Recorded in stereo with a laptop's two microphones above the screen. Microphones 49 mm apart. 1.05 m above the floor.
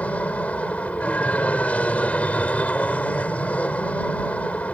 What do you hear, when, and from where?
0.0 s an aircraft: 30° left (ahead or behind)